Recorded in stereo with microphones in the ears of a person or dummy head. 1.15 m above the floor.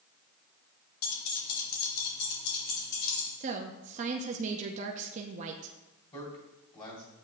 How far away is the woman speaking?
About 0.7 m.